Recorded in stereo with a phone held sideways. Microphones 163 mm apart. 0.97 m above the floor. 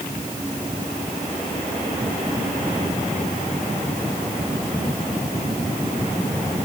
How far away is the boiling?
I don't hear boiling.